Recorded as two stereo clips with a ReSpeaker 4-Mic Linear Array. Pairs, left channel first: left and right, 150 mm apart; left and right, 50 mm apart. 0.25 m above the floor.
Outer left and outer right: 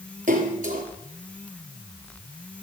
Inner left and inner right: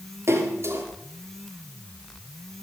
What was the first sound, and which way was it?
A splash, 55° right (ahead or behind).